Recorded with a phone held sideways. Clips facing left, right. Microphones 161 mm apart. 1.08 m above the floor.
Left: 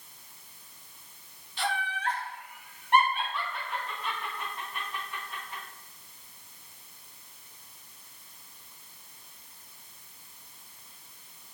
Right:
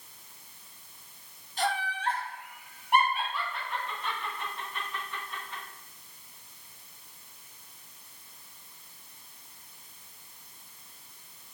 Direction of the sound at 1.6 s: 45° right (ahead or behind).